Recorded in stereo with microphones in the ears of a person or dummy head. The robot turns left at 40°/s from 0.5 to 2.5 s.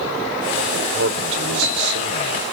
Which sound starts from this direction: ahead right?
A man speaking, at 0.7 s.